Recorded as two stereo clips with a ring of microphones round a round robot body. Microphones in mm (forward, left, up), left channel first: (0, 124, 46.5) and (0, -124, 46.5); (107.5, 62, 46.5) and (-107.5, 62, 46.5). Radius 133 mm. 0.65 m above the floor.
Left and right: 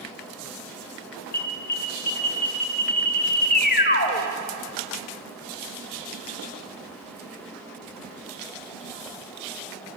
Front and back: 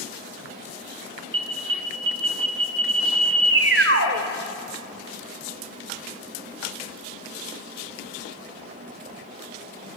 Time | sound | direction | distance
1.3 | an alarm | 145° left | 1.8 m